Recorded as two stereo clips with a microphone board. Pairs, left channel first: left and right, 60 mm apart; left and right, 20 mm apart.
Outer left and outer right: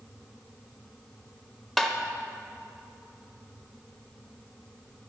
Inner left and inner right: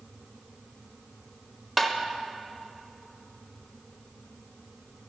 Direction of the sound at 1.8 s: Centre (ahead or behind).